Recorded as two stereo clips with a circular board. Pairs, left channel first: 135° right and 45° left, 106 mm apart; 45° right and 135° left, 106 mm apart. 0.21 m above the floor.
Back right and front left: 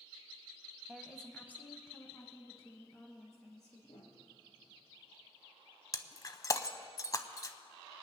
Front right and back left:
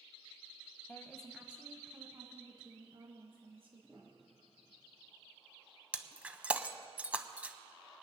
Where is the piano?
130° right, 3 m.